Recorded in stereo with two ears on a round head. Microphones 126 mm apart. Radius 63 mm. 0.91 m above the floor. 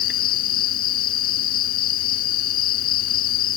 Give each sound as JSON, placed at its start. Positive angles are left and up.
{"t": 0.0, "sound": "an insect", "side_deg": 75}